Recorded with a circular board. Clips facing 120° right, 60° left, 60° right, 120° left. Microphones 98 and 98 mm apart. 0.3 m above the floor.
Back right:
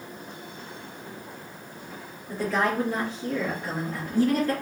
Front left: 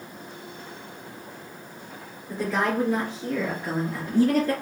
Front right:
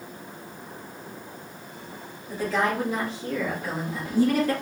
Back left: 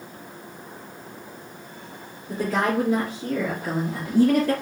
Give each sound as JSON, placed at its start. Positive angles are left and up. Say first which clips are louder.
{"t": 2.3, "sound": "a woman speaking", "louder": "even, back left 2 dB", "azimuth_deg": 135, "distance_m": 2.5}